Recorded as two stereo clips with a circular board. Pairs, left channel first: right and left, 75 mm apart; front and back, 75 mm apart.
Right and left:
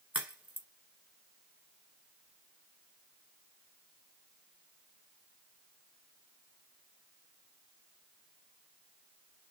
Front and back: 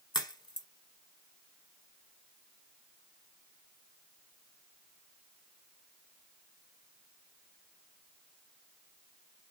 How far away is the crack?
About 1.1 m.